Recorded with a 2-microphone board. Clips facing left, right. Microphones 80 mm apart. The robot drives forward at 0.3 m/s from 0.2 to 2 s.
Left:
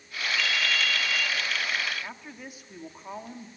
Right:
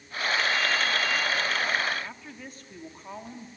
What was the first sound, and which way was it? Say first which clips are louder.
A ringtone: right 2 dB; 25° right (ahead or behind).